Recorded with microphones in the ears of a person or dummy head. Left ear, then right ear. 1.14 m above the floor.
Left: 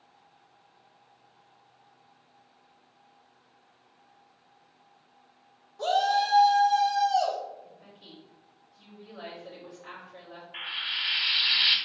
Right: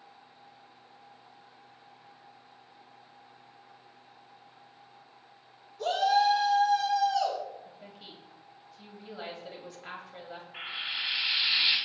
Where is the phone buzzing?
No phone buzzing in this recording.